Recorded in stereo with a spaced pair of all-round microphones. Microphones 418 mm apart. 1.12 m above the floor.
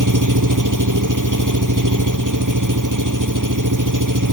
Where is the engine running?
45° right (ahead or behind).